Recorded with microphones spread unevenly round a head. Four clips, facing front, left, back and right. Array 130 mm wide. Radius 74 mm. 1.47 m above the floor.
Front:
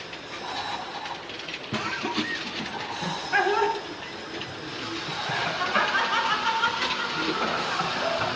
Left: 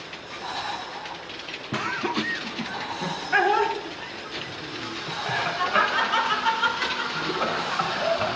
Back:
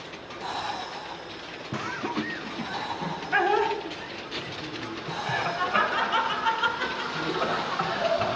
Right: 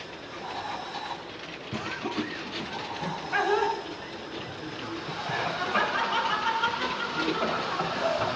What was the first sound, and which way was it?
Laughter, 65° left.